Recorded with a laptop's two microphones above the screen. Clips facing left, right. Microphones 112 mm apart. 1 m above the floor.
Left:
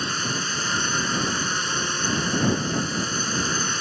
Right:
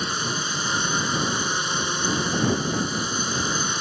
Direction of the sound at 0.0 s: 15° right (ahead or behind).